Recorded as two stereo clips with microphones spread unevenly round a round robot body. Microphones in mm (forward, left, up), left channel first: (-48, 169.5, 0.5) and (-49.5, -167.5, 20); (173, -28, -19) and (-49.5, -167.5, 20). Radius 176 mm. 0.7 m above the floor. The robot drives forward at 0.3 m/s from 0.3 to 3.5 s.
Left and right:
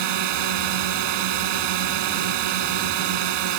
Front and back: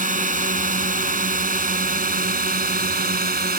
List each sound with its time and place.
0.0 s a drone: 90° right; by 3.6 s 95° right